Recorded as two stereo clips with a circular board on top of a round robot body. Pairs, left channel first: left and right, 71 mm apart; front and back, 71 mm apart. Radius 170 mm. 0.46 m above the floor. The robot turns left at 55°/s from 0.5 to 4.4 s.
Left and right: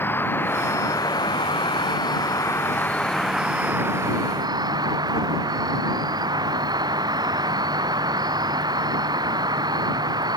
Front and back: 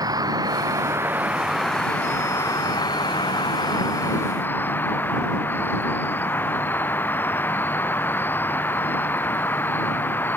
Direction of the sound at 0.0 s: 150° left.